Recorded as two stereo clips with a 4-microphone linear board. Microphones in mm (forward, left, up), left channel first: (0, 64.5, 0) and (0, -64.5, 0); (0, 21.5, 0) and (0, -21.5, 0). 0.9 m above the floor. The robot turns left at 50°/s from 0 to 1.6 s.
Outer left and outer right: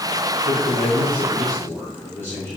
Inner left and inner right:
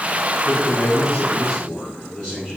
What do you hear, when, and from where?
0.5 s a man speaking: 80° left, 2.5 m; by 2.6 s 20° left, 2.5 m